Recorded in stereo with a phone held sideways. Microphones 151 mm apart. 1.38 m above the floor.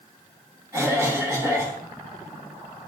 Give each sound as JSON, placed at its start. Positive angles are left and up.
{"t": 0.7, "sound": "a cough", "side_deg": -20, "distance_m": 2.5}